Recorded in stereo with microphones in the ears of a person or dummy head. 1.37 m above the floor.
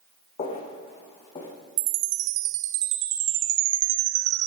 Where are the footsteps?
35° left (ahead or behind), 4.5 m; by 1.5 s 30° left (ahead or behind), 5 m.